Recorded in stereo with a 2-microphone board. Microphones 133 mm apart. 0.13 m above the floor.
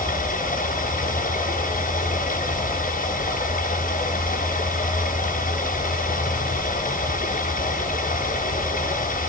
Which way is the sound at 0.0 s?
85° left.